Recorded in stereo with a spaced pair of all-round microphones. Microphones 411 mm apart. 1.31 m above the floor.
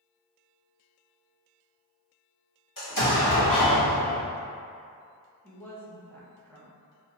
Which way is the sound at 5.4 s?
5° left (ahead or behind).